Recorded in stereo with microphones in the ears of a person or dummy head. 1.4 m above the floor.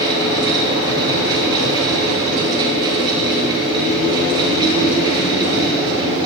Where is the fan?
20° right (ahead or behind), 7 m.